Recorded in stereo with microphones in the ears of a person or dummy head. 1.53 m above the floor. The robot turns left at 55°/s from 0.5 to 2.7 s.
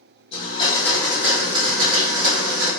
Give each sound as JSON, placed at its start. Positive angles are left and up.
{"t": 0.3, "sound": "a blender", "azimuth_deg": 30, "distance_m": 3.0}